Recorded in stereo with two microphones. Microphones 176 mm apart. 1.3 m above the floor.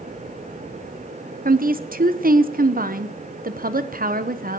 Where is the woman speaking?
55° right (ahead or behind), 0.8 m.